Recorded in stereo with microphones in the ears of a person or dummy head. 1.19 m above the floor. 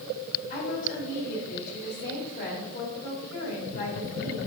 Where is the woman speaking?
55° left (ahead or behind), 4 m.